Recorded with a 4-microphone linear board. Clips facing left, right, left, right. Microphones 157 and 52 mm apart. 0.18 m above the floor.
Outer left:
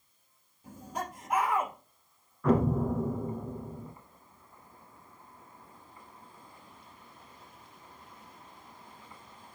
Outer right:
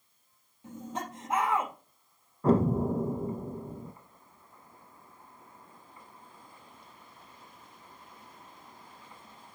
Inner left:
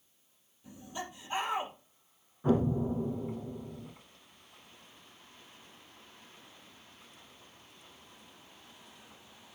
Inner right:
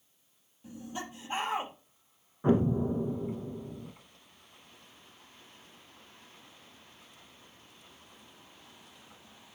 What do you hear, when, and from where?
0.6 s laughter: 25° right (ahead or behind), 4 m
2.4 s an explosion: 35° right (ahead or behind), 1.0 m